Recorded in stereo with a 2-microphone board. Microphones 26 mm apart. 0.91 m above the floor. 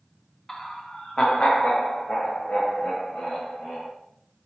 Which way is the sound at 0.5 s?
10° left (ahead or behind).